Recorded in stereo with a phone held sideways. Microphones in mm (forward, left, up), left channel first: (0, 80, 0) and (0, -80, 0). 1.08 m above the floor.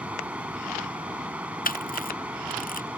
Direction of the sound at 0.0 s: 10° right (ahead or behind).